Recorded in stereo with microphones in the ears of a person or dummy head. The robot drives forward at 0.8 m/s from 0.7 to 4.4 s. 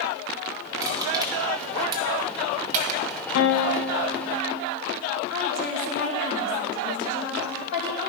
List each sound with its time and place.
0.8 s crushing: 15° right (ahead or behind), 2 m; by 3.0 s 40° right (ahead or behind), 0.8 m
3.4 s a guitar: 75° left (ahead or behind), 0.7 m; by 4.6 s 35° left (ahead or behind), 1.2 m
5.3 s a woman speaking: 55° left (ahead or behind), 3 m